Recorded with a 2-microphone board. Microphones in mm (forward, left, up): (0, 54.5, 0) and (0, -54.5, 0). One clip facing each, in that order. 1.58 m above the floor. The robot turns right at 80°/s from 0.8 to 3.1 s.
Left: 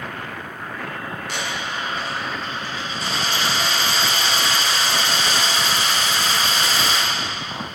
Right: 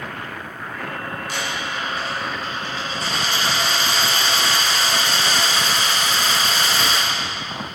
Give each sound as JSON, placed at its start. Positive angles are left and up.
{"t": 1.3, "sound": "a dropped coin", "azimuth_deg": 95, "distance_m": 2.5}